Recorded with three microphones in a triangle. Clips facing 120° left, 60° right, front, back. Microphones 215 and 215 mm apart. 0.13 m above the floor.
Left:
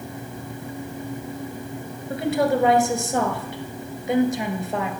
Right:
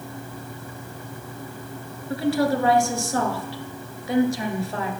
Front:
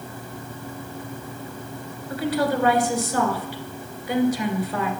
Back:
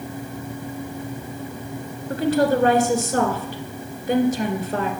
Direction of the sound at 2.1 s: Straight behind.